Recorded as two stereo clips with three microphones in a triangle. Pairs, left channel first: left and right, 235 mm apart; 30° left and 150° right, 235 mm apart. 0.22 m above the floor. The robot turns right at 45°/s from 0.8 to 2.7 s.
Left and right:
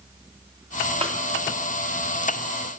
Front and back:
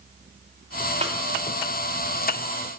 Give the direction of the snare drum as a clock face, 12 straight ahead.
4 o'clock.